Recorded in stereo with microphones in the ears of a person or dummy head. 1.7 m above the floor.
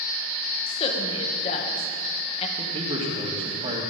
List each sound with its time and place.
0.7 s a woman speaking: 30° left (ahead or behind), 2 m
2.6 s a man speaking: 35° right (ahead or behind), 3 m